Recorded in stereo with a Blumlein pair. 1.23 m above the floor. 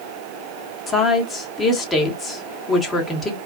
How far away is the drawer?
I don't hear a drawer.